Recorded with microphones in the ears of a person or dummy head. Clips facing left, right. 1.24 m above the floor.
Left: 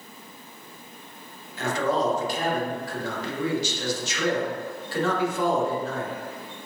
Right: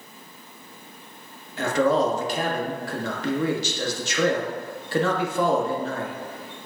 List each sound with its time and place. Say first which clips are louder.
1.6 s a man speaking: right 4 dB; 50° right (ahead or behind), 1.0 m